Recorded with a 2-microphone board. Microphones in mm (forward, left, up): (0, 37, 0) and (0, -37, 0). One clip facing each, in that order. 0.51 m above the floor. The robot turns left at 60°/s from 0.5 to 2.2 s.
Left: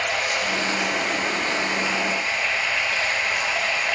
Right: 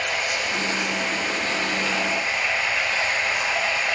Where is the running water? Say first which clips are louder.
Left 2 dB; 95° left, 0.8 m; by 4.0 s 5° right, 0.8 m.